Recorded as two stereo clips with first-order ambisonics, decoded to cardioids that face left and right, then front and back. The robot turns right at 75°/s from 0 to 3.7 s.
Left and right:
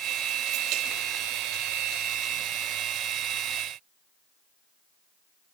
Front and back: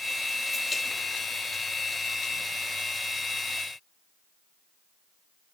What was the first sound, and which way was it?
Only background noise.